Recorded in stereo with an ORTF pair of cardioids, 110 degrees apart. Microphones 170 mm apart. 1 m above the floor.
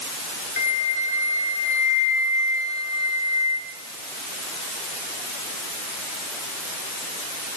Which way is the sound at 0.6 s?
45° left.